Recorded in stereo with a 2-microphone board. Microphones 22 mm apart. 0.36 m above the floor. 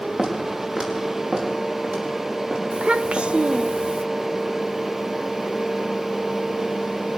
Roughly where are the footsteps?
Right.